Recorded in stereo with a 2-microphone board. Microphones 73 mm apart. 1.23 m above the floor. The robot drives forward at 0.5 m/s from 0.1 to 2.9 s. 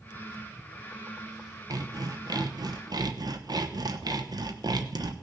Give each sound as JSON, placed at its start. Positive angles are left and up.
{"t": 1.7, "sound": "sawing", "side_deg": -55, "distance_m": 1.1}